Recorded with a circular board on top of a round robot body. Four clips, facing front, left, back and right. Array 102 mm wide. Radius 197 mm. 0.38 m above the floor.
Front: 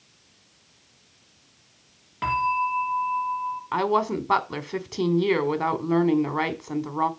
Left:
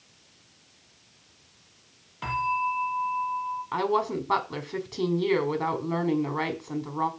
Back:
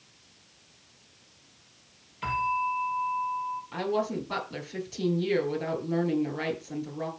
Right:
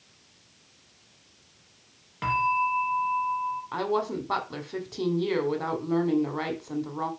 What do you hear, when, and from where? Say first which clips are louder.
2.2 s a bell: right 2 dB, front 4 dB; 35° right, 4 m
3.7 s a woman speaking: left 3 dB, front 7 dB; 5° left, 2.5 m